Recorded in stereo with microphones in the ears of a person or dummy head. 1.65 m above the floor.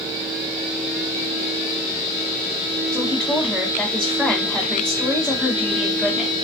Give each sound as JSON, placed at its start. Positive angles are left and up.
{"t": 2.9, "sound": "a woman speaking", "side_deg": 0, "distance_m": 0.9}